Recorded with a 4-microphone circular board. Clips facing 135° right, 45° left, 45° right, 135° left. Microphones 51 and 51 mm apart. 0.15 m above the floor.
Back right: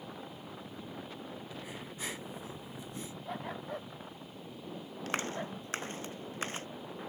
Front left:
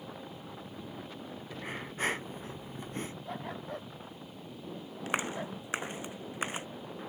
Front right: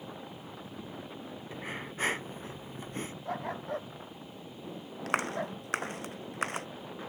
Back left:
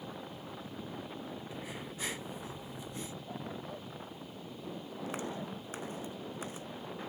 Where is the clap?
30° right.